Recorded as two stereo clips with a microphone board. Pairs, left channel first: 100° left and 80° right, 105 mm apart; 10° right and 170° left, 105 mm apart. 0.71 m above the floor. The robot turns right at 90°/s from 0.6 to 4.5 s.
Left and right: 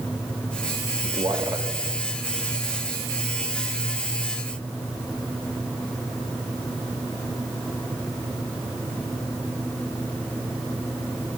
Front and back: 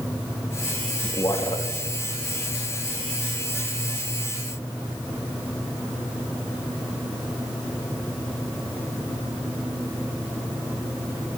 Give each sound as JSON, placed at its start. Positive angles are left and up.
{"t": 1.0, "sound": "a man speaking", "azimuth_deg": -75, "distance_m": 1.1}